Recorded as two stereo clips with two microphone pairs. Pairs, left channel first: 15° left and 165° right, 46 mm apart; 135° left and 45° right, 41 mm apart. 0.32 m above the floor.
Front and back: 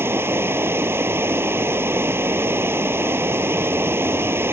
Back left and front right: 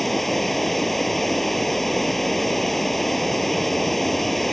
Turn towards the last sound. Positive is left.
turn(degrees=-140)